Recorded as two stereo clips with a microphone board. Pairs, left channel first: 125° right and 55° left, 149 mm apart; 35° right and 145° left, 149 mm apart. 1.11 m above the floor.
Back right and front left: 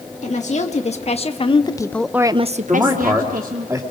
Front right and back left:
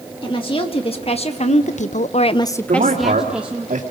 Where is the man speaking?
130° left, 2.5 m.